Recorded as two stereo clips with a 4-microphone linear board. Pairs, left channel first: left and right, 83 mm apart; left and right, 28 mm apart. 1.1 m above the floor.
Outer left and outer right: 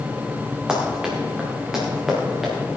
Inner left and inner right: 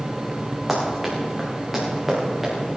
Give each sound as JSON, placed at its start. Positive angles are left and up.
{"t": 0.7, "sound": "running footsteps", "side_deg": -10, "distance_m": 4.0}